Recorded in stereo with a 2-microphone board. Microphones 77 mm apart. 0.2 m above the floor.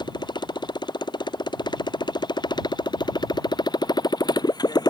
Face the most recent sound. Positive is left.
turn(degrees=60)  # may be behind; listen again after turning